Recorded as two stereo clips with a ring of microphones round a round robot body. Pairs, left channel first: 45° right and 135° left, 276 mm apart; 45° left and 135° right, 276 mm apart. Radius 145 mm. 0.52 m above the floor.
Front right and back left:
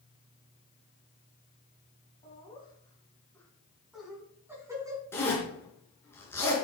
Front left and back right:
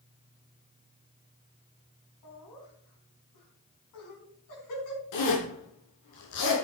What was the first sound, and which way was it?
Laughter, 25° left.